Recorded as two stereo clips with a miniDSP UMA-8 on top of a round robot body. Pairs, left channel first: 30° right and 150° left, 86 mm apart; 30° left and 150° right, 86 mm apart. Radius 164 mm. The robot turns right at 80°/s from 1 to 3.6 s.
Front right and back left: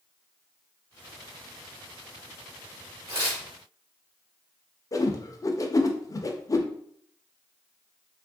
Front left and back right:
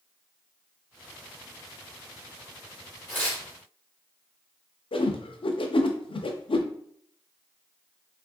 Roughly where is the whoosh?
Ahead.